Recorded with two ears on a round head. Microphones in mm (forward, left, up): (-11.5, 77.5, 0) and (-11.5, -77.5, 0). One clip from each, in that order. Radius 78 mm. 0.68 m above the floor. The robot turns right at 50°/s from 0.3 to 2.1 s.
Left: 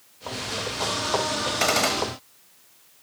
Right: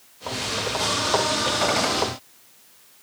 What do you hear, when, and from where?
1.6 s a gunshot: 75° left (ahead or behind); by 2.0 s 70° left (ahead or behind)